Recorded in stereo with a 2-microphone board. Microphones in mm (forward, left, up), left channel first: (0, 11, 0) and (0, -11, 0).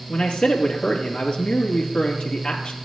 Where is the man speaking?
60° left (ahead or behind), 2.5 m.